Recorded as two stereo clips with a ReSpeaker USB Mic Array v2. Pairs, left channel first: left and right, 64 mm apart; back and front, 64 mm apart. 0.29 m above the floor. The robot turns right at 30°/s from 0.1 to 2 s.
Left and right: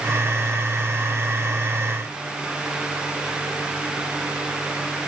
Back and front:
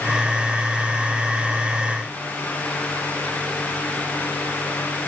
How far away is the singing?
I don't hear singing.